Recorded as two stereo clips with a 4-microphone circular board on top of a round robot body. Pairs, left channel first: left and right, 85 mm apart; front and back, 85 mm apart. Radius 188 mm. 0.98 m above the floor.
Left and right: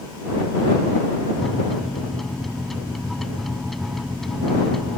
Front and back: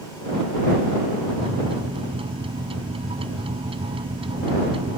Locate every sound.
1.4 s a microwave: straight behind